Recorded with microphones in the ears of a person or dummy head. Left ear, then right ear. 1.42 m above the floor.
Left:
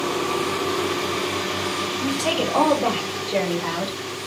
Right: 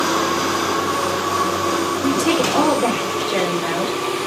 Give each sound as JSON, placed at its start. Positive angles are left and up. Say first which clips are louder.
{"t": 2.0, "sound": "a woman speaking", "louder": "right 4 dB", "side_deg": -5, "distance_m": 2.0}